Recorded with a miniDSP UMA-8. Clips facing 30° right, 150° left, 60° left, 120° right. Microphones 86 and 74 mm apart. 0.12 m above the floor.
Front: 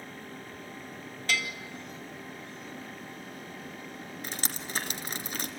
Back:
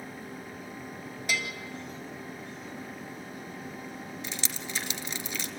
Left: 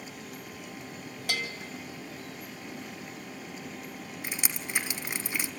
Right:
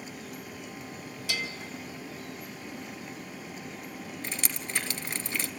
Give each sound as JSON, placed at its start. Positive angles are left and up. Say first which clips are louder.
{"t": 1.3, "sound": "a bell", "louder": "front 1 dB, left 1 dB", "azimuth_deg": 80, "distance_m": 2.0}
{"t": 4.2, "sound": "dripping", "louder": "even, left 1 dB", "azimuth_deg": -10, "distance_m": 1.3}